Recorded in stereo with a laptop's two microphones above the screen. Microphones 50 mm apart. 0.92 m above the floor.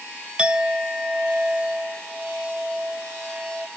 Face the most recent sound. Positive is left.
turn(degrees=-20)  # may be behind; listen again after turning